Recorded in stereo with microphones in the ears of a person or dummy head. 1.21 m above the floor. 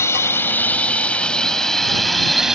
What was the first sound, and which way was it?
A drone, 15° left (ahead or behind).